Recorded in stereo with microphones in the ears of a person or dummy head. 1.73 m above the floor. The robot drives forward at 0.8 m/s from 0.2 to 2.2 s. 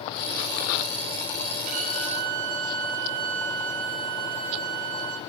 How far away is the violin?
About 5.5 m.